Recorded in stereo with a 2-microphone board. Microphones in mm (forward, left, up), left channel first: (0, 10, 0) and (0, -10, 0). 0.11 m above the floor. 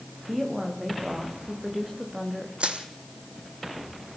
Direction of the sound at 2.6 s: 75° right (ahead or behind).